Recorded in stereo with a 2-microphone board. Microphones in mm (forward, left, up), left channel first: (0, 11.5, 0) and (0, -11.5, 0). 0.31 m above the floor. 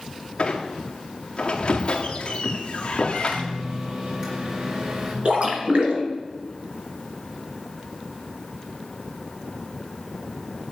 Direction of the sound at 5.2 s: 50° right (ahead or behind).